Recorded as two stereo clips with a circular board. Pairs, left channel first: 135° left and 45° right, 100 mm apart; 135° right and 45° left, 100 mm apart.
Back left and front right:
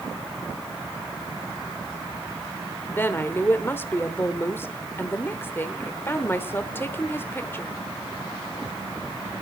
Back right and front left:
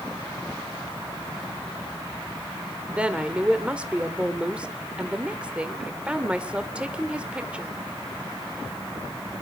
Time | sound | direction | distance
2.9 | a woman speaking | 110° left | 1.2 m